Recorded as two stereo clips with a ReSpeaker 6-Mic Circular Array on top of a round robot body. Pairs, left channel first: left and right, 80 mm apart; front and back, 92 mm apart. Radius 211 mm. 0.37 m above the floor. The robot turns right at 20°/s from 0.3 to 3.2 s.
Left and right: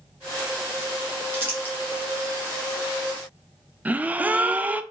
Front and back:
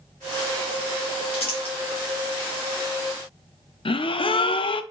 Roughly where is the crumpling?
Ahead right.